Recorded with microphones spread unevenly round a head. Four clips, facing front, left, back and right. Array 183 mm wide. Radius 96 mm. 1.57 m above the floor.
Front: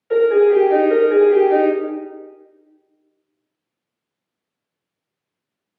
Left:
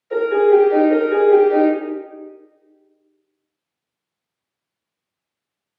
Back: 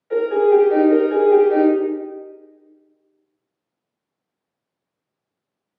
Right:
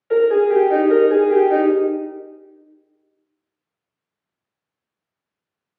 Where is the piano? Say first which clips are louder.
Even, front 2 dB; 45° right, 1.1 m.